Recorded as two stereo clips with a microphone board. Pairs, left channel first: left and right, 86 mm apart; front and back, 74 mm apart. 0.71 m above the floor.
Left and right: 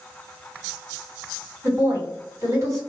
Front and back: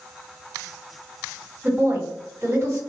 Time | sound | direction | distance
1.6 | a woman speaking | 130° right | 1.9 m